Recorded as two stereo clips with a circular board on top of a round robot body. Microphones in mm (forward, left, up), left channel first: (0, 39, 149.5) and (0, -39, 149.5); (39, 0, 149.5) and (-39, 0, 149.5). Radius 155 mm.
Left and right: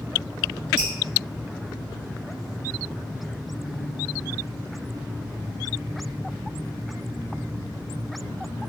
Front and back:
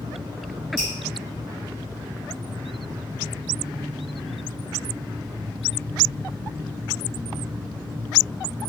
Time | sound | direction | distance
0.8 | dripping | 90° right | 1.0 m